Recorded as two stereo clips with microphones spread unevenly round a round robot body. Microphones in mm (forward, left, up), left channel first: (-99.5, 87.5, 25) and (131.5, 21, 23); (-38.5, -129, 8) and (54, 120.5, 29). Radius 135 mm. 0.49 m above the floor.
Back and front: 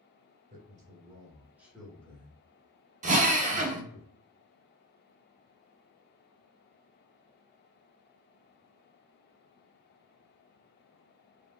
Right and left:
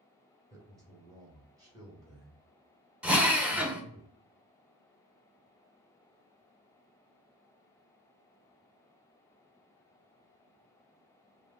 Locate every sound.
0.5 s a man speaking: 5° right, 1.5 m; by 4.0 s 155° left, 1.9 m
3.0 s a drill: 20° right, 0.7 m